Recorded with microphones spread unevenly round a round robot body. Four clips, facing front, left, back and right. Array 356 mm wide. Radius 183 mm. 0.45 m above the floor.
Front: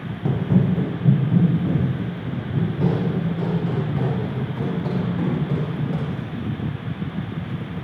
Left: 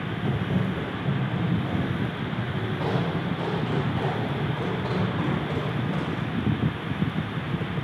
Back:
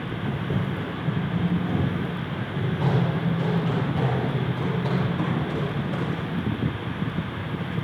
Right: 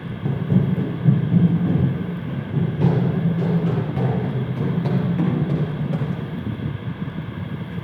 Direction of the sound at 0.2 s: 25° right.